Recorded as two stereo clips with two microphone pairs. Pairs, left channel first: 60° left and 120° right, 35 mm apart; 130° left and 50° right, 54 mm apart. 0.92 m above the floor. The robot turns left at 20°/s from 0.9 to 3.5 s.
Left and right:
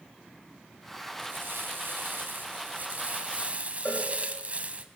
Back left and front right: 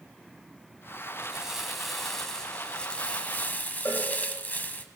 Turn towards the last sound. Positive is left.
turn(degrees=90)